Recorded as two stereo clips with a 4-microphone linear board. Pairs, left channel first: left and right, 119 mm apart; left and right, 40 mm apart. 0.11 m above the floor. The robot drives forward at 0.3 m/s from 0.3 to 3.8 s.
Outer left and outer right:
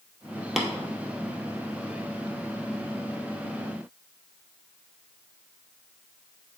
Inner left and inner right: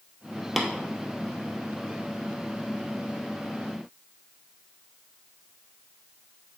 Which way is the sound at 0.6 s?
Centre (ahead or behind).